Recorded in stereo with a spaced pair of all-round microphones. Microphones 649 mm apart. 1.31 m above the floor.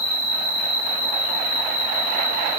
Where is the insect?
40° right (ahead or behind), 9.5 m.